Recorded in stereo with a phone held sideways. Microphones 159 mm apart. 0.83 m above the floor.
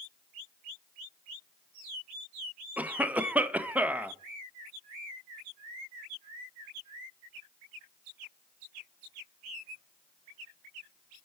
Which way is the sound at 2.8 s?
10° right (ahead or behind).